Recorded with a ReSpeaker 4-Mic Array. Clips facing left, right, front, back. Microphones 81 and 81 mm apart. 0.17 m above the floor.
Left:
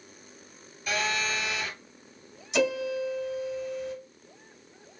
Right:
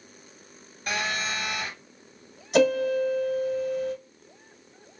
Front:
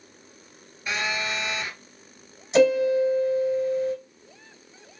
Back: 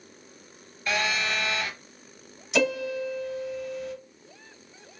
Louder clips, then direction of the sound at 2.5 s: Right 6 dB, front 8 dB; 55° right.